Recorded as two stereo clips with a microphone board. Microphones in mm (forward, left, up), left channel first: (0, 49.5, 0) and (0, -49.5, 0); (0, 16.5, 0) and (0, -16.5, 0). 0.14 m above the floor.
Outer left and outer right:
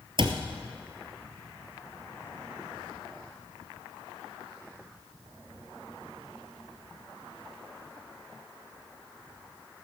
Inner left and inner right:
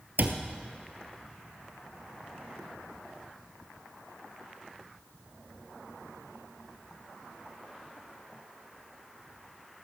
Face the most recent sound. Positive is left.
turn(degrees=-55)  # may be behind; listen again after turning